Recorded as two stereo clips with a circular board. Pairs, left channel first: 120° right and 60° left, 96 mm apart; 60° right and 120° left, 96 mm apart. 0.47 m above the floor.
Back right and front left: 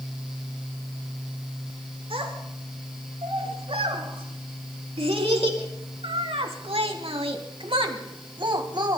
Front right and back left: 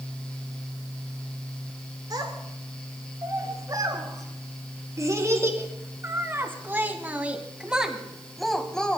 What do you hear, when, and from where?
2.1 s a child speaking: 75° left, 5.5 m; by 9.0 s 20° left, 2 m